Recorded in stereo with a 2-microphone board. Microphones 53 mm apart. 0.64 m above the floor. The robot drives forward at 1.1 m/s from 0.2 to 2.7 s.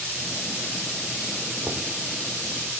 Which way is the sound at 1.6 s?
70° right (ahead or behind).